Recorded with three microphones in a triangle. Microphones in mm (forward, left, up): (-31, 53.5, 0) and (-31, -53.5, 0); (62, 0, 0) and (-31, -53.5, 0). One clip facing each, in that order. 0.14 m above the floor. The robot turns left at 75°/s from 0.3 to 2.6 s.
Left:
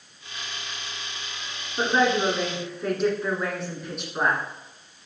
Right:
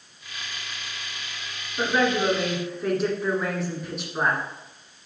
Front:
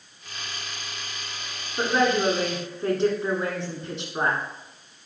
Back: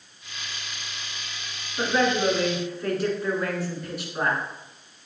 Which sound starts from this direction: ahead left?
A woman speaking, at 1.8 s.